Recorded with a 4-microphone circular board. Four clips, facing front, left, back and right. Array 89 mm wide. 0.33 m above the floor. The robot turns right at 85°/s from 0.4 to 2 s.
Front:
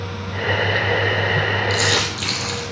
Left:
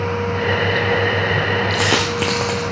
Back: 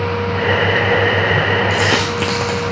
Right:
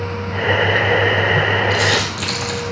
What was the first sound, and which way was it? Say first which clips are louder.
A dropped coin: even, back 5 dB; 110° left.